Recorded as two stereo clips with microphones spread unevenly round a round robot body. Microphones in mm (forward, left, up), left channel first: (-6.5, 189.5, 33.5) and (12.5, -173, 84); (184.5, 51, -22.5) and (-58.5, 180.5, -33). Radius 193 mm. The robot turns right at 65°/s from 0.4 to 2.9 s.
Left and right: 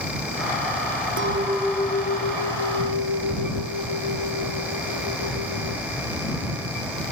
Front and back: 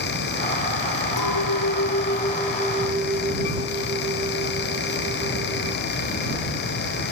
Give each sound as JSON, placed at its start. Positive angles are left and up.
{"t": 1.2, "sound": "a clink", "azimuth_deg": -30}